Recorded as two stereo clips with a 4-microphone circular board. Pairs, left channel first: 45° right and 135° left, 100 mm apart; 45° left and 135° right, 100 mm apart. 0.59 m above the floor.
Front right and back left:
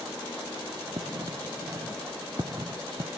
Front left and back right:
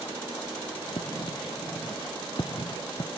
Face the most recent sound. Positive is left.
turn(degrees=85)